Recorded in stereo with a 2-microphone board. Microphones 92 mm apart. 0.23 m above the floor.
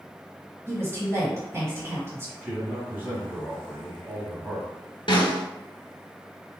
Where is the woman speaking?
25° right (ahead or behind), 1.5 m.